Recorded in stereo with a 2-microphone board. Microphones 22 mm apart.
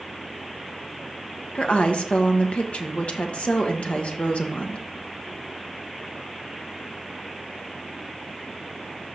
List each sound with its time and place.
1.6 s a woman speaking: 65° left (ahead or behind), 1.2 m